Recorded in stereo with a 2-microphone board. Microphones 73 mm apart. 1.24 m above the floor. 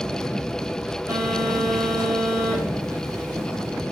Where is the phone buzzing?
60° right (ahead or behind), 5.5 m.